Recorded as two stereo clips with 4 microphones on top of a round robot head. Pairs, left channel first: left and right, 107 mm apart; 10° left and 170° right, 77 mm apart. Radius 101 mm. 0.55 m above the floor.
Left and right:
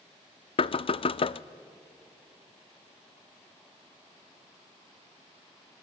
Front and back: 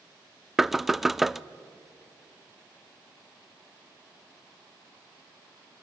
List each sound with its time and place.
0.6 s knocking: 100° left, 0.6 m